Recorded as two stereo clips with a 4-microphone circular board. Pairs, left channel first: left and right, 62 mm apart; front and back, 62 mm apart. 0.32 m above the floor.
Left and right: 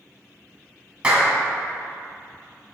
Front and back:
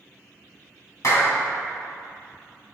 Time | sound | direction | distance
1.0 | a clap | 20° right | 2 m